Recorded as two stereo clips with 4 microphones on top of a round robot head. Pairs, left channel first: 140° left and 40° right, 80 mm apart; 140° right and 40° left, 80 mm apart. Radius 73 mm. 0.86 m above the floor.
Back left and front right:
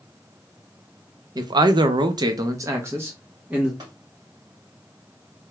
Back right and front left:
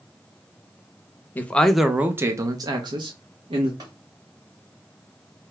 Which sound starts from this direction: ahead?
Tapping, at 3.8 s.